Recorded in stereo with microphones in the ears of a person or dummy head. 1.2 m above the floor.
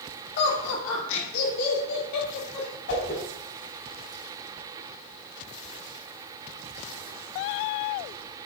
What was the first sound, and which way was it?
Laughter, 60° left (ahead or behind).